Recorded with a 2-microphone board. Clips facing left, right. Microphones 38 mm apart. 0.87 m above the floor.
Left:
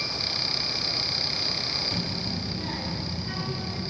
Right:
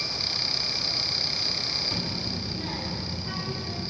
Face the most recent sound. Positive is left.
turn(degrees=-10)  # may be behind; listen again after turning